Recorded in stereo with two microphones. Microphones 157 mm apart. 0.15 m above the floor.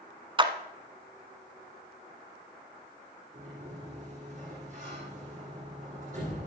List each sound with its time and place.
0.4 s a clap: 30° right (ahead or behind), 1.2 m
3.3 s a sliding door: 50° right (ahead or behind), 6 m